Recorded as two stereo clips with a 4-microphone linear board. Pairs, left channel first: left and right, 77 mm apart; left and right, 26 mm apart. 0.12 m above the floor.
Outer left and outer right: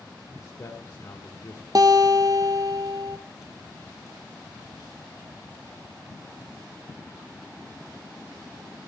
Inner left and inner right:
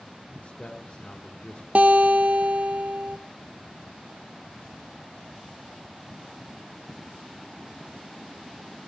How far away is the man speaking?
About 2.0 m.